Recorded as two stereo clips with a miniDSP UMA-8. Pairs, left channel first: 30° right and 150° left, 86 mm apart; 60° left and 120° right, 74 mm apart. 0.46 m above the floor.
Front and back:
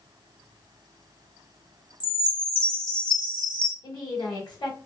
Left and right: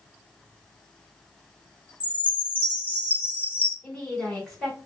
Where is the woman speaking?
25° right, 2 m.